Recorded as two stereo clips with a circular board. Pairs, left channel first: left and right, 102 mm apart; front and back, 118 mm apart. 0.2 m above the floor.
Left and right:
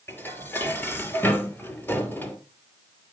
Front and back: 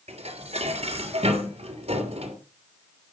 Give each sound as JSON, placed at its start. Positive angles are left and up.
{"t": 0.1, "sound": "dishes clattering", "azimuth_deg": 160, "distance_m": 3.0}